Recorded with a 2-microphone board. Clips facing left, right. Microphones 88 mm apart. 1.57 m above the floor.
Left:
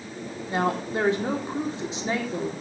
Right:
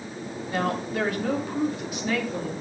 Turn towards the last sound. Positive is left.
turn(degrees=25)  # may be behind; listen again after turning